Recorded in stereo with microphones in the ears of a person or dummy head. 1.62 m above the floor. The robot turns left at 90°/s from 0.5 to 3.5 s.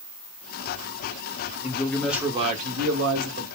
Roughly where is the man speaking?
Ahead left.